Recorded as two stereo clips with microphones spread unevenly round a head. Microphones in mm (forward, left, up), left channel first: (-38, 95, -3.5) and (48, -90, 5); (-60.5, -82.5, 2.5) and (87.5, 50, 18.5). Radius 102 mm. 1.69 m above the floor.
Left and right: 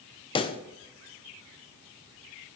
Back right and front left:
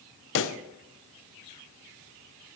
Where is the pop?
175° right, 0.6 m.